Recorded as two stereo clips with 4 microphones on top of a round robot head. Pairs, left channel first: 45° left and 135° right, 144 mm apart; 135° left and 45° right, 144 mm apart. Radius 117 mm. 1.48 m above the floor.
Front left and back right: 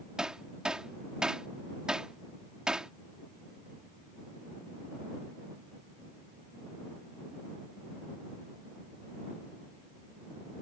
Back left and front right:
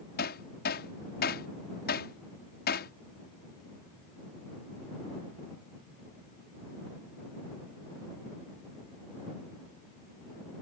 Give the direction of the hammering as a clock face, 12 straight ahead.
7 o'clock.